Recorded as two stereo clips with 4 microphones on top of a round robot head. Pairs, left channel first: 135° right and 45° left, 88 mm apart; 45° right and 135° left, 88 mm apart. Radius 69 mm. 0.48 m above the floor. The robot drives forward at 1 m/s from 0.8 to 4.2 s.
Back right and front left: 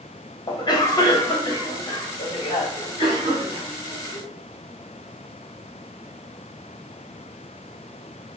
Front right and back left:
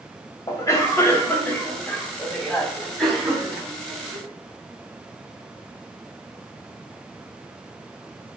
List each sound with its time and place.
0.5 s a cough: 100° right, 3 m; by 4.2 s 145° right, 4.5 m